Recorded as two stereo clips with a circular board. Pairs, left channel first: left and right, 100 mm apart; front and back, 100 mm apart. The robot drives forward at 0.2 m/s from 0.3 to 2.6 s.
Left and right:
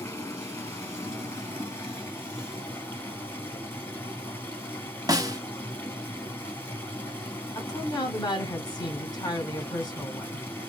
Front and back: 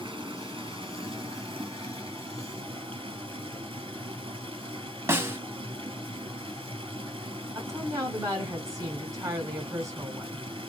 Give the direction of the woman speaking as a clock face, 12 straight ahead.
8 o'clock.